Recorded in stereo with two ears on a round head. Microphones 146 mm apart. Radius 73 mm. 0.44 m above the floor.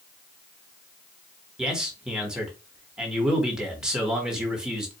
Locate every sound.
1.6 s a man speaking: 5° right (ahead or behind), 1.4 m